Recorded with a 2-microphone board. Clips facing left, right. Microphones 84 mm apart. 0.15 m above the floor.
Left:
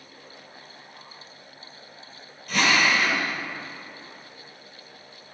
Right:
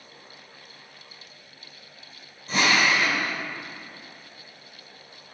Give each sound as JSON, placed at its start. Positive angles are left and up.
{"t": 2.5, "sound": "a drill", "side_deg": -30, "distance_m": 3.5}